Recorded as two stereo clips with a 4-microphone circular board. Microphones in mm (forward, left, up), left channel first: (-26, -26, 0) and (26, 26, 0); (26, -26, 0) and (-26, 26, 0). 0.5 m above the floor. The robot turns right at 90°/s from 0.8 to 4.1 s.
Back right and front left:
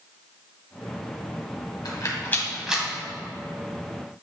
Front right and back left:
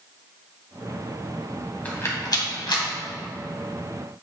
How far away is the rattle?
About 1.9 m.